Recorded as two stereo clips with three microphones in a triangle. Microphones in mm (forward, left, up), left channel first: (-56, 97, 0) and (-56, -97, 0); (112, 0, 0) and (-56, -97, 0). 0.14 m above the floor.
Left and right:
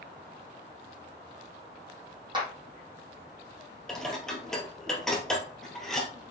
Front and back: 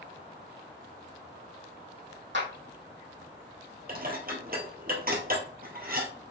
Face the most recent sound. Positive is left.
turn(degrees=175)